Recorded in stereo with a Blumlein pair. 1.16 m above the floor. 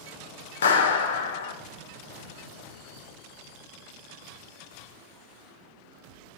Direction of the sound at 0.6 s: 65° left.